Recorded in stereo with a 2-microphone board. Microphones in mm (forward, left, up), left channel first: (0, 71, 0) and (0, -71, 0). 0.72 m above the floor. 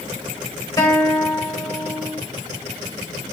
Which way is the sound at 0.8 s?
30° left (ahead or behind).